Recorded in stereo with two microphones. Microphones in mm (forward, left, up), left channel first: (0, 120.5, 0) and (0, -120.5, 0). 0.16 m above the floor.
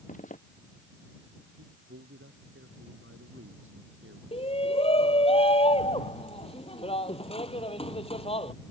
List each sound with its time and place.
0.1 s a zipper: 30° left (ahead or behind)
1.6 s a man speaking: 55° right (ahead or behind)
4.3 s a shout: 25° left (ahead or behind)